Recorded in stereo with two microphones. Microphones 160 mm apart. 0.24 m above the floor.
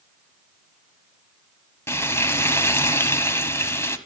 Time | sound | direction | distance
1.9 | frying | 15° left (ahead or behind) | 1.3 m